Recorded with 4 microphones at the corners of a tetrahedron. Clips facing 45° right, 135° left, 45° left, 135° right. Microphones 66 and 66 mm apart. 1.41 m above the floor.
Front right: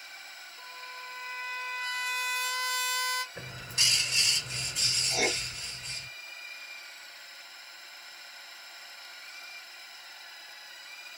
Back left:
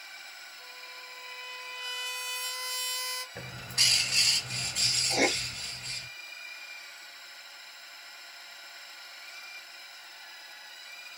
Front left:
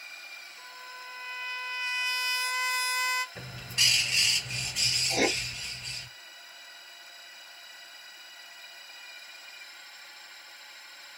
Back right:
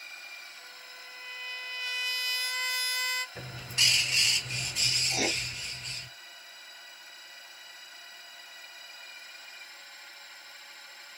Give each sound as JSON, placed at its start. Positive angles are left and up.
{"t": 0.6, "sound": "a trumpet", "azimuth_deg": -20, "distance_m": 0.5}
{"t": 3.4, "sound": "a bird", "azimuth_deg": 145, "distance_m": 1.7}
{"t": 5.1, "sound": "writing", "azimuth_deg": 90, "distance_m": 0.5}